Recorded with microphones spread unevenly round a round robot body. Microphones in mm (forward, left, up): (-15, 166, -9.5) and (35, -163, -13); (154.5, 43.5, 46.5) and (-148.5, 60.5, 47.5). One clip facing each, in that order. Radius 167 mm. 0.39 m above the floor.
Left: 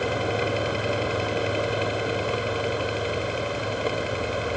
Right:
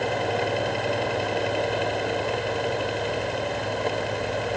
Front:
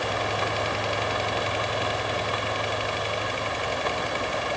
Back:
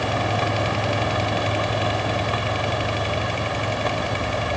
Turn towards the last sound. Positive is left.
No sound to turn to.